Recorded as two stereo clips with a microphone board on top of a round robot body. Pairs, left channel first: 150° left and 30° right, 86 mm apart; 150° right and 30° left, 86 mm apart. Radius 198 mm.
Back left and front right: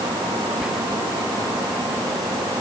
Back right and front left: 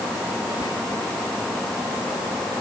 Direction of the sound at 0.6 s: 110° right.